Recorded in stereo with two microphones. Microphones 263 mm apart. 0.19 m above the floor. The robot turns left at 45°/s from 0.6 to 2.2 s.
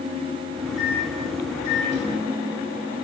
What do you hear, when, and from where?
0.8 s a microwave: 80° left, 5 m; by 3.0 s 30° left (ahead or behind), 5 m